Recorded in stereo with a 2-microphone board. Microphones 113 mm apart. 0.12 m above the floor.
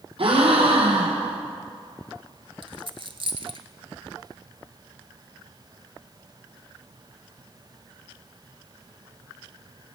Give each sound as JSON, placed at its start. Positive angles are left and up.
{"t": 0.2, "sound": "a gasp", "side_deg": -60, "distance_m": 3.0}
{"t": 2.6, "sound": "a dropped coin", "side_deg": -55, "distance_m": 0.7}